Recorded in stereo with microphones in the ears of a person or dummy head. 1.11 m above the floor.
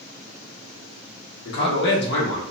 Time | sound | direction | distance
1.4 | a man speaking | 70° left (ahead or behind) | 1.2 m